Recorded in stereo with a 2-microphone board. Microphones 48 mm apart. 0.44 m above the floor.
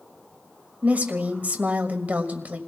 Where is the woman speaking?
30° right (ahead or behind), 1.6 m.